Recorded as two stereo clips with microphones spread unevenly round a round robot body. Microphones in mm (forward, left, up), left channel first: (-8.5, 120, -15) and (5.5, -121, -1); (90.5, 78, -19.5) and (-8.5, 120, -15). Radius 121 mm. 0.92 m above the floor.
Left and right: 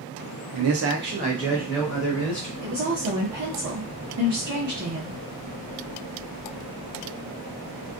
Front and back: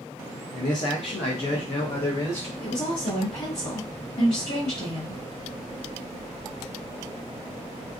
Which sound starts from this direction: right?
A man speaking, at 0.5 s.